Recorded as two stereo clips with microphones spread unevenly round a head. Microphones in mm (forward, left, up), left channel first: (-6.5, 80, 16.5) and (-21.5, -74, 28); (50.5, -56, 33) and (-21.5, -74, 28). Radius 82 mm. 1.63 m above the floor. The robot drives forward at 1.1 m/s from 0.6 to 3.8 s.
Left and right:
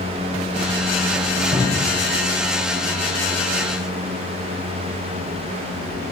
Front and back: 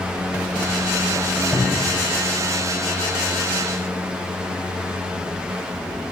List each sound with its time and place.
1.5 s a cupboard door: 30° right, 3.5 m; by 2.0 s 35° right, 3 m